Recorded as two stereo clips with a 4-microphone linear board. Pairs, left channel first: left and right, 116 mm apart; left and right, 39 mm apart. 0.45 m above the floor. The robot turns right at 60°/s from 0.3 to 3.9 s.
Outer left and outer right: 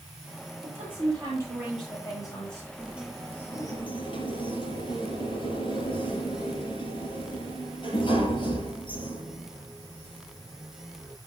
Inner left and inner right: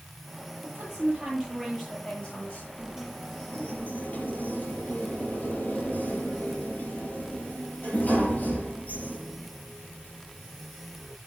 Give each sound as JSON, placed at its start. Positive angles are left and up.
{"t": 0.6, "sound": "a woman speaking", "azimuth_deg": -70, "distance_m": 9.5}
{"t": 2.8, "sound": "a sliding door", "azimuth_deg": -20, "distance_m": 4.5}